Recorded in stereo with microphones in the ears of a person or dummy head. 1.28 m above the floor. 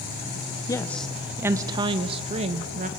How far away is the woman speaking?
About 0.7 m.